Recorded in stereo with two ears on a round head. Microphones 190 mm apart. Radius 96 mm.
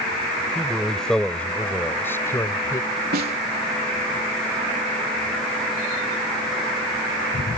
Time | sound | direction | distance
0.6 | a man speaking | centre (ahead or behind) | ?
3.1 | a snare drum | 45° right (ahead or behind) | ?